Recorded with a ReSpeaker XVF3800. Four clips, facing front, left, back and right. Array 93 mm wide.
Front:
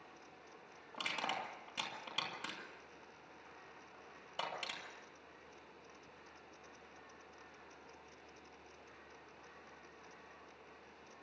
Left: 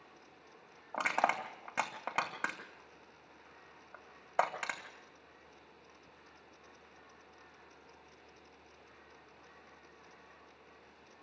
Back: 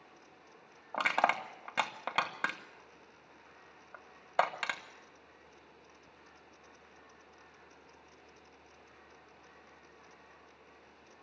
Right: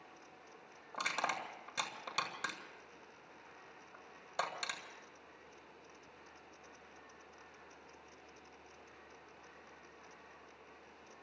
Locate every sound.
0.9 s crushing: 150° left, 1.7 m